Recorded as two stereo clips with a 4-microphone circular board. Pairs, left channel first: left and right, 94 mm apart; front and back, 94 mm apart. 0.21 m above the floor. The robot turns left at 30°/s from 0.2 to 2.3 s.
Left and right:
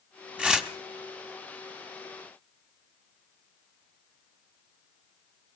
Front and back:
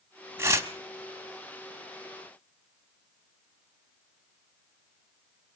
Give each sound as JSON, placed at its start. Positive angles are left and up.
{"t": 0.4, "sound": "tearing paper", "azimuth_deg": -160, "distance_m": 1.4}